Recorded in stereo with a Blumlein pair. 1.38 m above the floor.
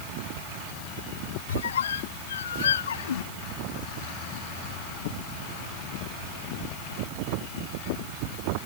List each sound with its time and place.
1.5 s a squeak: 65° left